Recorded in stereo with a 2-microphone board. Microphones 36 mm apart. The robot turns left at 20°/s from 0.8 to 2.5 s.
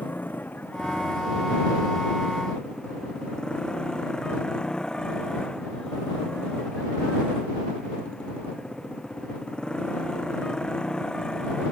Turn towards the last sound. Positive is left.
turn(degrees=20)